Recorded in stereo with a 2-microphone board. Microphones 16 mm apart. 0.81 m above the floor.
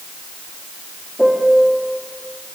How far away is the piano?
About 1.7 m.